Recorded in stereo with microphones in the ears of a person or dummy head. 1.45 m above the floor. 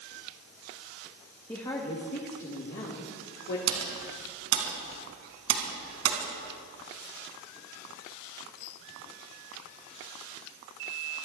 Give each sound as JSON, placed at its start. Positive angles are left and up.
{"t": 1.5, "sound": "a woman speaking", "side_deg": 10, "distance_m": 1.8}
{"t": 3.7, "sound": "typing on a keyboard", "side_deg": -75, "distance_m": 4.5}